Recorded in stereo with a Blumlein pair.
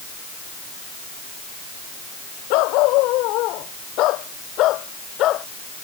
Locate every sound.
2.5 s a dog barking: 40° left; by 5.5 s 35° left